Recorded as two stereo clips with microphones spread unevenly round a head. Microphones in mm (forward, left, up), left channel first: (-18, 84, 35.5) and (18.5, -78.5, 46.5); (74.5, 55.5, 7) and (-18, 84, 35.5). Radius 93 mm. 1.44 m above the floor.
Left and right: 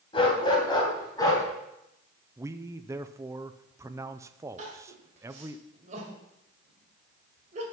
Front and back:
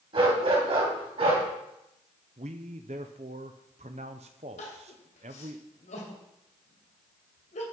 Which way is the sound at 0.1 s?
165° left.